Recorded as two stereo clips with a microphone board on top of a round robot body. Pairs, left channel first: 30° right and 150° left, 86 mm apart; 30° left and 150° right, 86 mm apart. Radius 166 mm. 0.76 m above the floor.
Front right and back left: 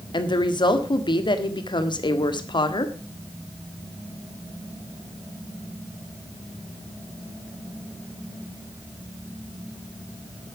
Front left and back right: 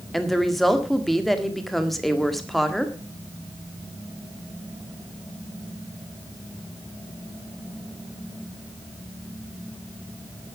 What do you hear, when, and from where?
0.1 s a woman speaking: 60° right, 1.8 m